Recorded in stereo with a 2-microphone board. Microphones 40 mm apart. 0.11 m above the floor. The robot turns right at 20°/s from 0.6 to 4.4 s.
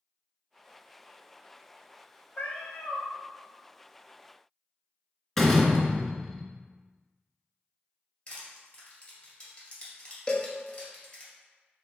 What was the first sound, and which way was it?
A cat meowing, 45° left (ahead or behind).